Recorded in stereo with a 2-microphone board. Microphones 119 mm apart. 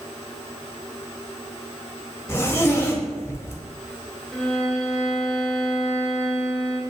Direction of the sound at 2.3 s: 25° left (ahead or behind).